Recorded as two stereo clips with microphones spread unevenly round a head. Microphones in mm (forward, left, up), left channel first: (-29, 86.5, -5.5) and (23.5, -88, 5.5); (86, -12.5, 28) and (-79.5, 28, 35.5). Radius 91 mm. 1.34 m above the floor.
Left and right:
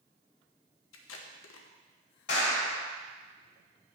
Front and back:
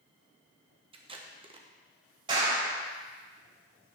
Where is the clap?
105° left, 4.5 m.